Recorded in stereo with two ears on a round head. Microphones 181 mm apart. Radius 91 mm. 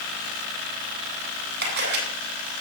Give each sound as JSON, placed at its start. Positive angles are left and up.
{"t": 1.6, "sound": "a camera shutter", "side_deg": -60, "distance_m": 7.5}